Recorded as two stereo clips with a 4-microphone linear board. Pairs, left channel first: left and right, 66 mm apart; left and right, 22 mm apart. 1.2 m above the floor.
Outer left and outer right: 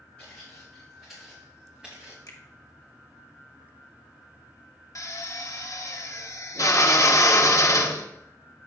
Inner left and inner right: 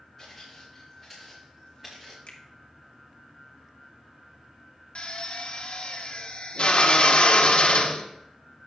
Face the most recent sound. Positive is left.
turn(degrees=55)  # may be behind; listen again after turning